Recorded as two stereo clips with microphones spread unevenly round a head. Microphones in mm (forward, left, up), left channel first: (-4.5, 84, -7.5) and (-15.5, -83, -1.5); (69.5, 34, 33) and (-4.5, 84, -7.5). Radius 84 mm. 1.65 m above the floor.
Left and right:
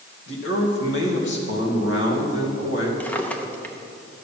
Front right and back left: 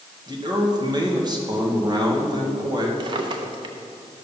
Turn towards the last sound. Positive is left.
turn(degrees=155)